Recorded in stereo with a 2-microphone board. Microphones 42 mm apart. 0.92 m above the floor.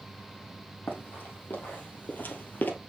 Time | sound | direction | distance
0.9 | running footsteps | 50° left (ahead or behind) | 2.5 m